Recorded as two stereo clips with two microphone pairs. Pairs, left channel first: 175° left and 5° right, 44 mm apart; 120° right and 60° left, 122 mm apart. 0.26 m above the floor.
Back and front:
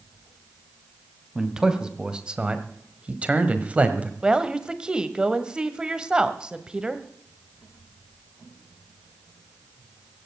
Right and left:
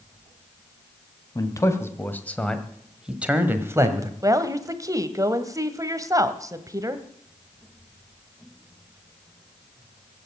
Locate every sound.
1.4 s a man speaking: 70° right, 2.0 m; by 4.1 s 25° left, 1.8 m
4.2 s a woman speaking: 45° left, 1.3 m